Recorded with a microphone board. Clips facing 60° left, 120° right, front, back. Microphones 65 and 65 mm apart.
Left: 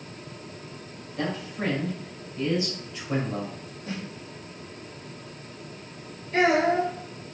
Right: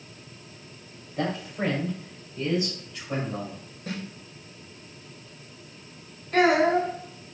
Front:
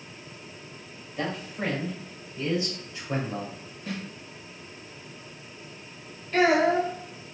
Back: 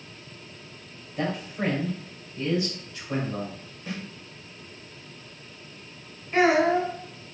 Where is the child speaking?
110° right, 1.3 m.